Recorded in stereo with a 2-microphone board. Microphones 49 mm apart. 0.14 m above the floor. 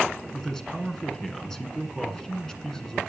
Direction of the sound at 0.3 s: 10° left (ahead or behind).